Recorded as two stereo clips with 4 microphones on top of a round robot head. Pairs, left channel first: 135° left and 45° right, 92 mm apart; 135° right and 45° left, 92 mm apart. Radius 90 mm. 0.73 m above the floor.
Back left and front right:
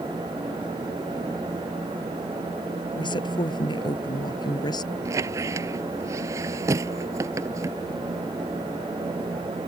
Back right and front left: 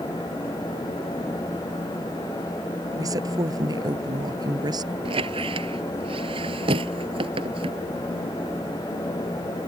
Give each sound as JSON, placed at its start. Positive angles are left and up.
{"t": 3.0, "sound": "a woman speaking", "azimuth_deg": 95}
{"t": 5.0, "sound": "a squeak", "azimuth_deg": 15}